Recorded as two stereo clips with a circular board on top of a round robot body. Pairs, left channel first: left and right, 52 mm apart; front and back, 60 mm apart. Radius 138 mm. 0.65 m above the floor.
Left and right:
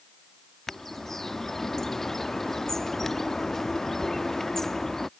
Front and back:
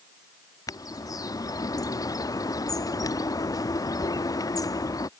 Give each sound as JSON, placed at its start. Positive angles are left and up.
{"t": 0.7, "sound": "a bird", "azimuth_deg": 5}